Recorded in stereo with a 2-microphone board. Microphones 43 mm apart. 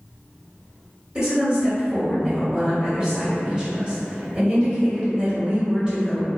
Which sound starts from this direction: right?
A woman speaking, at 1.1 s.